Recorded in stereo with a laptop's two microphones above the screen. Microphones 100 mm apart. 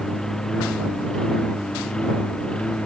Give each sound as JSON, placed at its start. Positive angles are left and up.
{"t": 0.0, "sound": "a lawn mower", "side_deg": 5}